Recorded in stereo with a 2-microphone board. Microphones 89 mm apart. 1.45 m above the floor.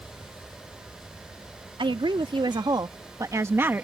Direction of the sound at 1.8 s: 70° right (ahead or behind).